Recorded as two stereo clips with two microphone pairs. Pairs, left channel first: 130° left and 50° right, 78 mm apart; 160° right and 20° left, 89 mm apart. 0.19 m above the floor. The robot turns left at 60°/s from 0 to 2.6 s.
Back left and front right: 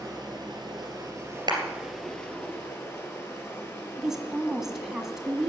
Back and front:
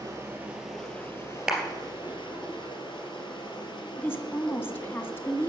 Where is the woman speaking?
130° right, 1.6 m.